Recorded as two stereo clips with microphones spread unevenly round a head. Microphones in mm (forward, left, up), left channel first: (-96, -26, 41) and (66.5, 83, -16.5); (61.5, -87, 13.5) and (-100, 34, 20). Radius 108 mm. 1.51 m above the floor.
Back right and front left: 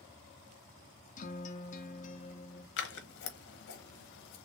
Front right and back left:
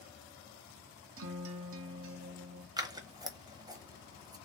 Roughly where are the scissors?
Behind right.